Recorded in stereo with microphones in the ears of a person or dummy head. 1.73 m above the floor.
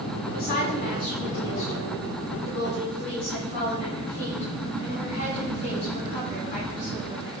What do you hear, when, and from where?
0.3 s a woman speaking: 50° left (ahead or behind), 5.5 m; by 7.3 s 40° left (ahead or behind), 12.5 m